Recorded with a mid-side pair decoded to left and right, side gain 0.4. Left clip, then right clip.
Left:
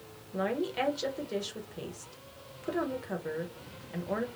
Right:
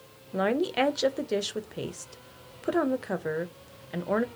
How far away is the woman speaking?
About 0.6 m.